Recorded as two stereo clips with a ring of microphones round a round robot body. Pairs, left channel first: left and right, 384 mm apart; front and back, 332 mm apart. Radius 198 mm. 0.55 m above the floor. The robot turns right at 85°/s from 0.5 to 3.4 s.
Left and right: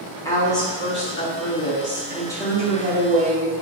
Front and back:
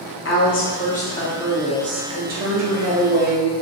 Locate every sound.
0.2 s a woman speaking: 15° left, 0.9 m; by 3.5 s 100° right, 0.9 m